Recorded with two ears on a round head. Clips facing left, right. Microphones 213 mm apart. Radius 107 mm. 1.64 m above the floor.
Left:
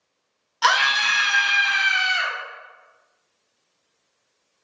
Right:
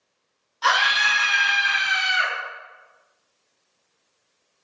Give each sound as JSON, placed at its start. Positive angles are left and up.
{"t": 0.6, "sound": "a scream", "side_deg": 65, "distance_m": 1.2}